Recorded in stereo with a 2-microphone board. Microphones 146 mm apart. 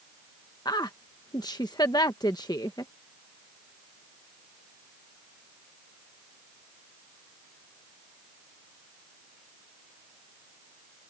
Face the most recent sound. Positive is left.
turn(degrees=30)  # may be behind; listen again after turning